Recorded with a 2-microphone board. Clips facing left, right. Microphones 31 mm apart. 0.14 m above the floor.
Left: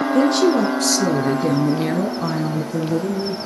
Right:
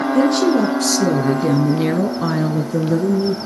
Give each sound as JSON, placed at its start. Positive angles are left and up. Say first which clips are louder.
{"t": 0.1, "sound": "a woman speaking", "louder": "right 1 dB", "side_deg": 10, "distance_m": 2.5}